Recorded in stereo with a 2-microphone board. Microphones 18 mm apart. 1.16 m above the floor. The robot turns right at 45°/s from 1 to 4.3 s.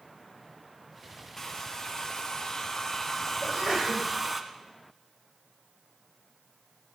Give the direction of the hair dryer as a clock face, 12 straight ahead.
10 o'clock.